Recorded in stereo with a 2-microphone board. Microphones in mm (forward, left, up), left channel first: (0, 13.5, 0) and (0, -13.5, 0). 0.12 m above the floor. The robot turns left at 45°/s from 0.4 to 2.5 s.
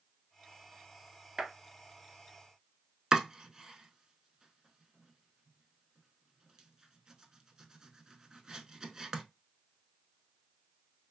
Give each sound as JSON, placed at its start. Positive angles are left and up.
{"t": 1.4, "sound": "a clap", "side_deg": -25, "distance_m": 1.6}
{"t": 3.1, "sound": "chopping", "side_deg": -20, "distance_m": 0.5}